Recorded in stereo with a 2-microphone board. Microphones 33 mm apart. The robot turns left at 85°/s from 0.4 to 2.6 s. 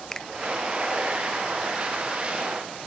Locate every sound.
0.1 s a finger snap: 15° left (ahead or behind)